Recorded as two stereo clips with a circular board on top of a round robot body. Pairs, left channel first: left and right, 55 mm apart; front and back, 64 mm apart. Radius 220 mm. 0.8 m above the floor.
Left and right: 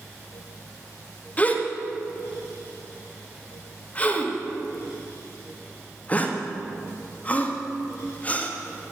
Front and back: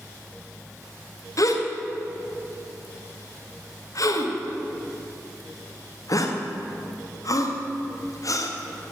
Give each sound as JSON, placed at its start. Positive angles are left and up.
{"t": 1.4, "sound": "a gasp", "azimuth_deg": 30, "distance_m": 2.0}